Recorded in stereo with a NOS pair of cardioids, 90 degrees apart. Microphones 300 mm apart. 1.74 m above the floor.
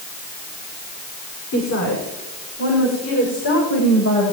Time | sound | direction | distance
1.5 | a woman speaking | 65° left | 6.5 m